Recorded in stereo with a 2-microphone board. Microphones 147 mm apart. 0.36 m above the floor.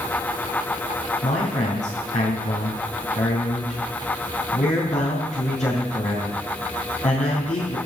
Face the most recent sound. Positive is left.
turn(degrees=55)  # may be behind; listen again after turning